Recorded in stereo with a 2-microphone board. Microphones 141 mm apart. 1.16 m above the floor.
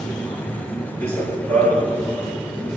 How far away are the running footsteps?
About 5.5 m.